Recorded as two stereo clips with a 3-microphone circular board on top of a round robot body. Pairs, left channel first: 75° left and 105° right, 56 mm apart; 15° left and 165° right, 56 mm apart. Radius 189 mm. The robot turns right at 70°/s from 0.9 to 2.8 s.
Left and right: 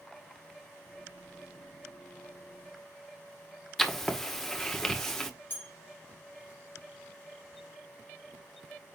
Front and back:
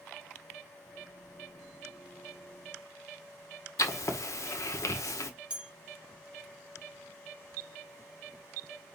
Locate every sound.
3.8 s writing: 10° right, 1.6 m
5.5 s a bell: 130° left, 0.5 m